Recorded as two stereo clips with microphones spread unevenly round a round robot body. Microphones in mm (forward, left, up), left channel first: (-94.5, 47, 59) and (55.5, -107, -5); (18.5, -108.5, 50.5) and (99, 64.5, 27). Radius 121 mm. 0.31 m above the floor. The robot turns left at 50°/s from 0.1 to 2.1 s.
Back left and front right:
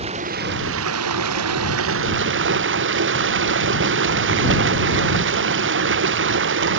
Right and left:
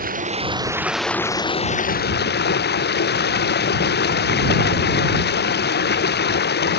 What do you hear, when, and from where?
0.0 s running water: 20° left; by 6.8 s 80° right